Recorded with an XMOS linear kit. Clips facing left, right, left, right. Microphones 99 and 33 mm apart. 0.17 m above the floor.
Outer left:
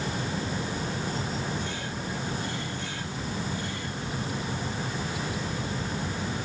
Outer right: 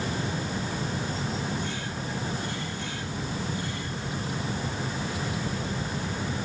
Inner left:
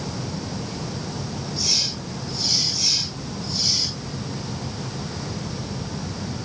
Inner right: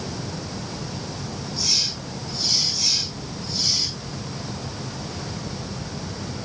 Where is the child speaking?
No child speaking in this recording.